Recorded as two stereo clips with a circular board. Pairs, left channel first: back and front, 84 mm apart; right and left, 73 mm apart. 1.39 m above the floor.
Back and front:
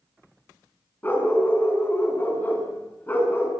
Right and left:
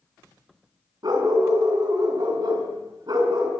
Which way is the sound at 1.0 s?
115° left.